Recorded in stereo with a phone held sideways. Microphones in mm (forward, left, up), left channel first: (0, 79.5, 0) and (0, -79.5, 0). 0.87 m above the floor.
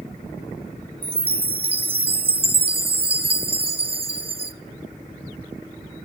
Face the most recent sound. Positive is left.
turn(degrees=-35)  # may be behind; listen again after turning